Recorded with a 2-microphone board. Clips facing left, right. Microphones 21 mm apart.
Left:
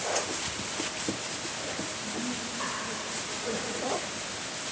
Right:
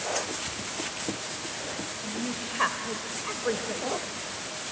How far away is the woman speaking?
About 1.7 m.